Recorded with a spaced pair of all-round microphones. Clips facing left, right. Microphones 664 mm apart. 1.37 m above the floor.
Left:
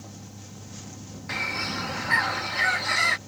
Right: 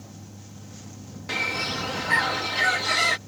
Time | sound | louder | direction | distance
0.0 | a fan | even | 5° right (ahead or behind) | ?
1.3 | a bird | right 3 dB | 60° right (ahead or behind) | ?